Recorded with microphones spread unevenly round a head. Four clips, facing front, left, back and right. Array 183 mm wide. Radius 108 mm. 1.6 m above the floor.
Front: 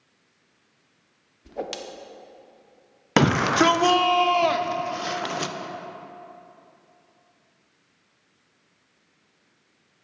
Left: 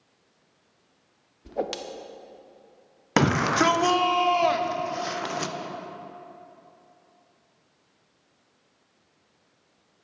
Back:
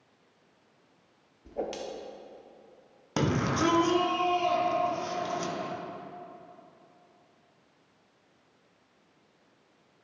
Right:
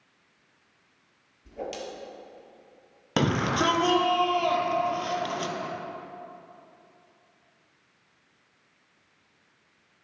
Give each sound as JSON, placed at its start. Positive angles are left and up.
{"t": 1.4, "sound": "a whoosh", "azimuth_deg": 65, "distance_m": 0.5}
{"t": 3.2, "sound": "a shout", "azimuth_deg": 10, "distance_m": 0.7}